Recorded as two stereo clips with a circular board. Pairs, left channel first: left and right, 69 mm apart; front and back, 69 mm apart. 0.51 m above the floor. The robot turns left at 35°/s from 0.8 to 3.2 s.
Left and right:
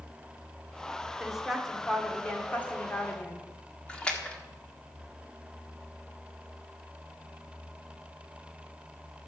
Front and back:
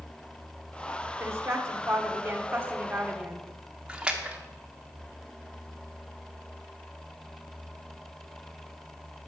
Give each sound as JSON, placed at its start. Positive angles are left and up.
{"t": 1.2, "sound": "a woman speaking", "azimuth_deg": -165, "distance_m": 1.4}
{"t": 3.9, "sound": "a splash", "azimuth_deg": 135, "distance_m": 1.3}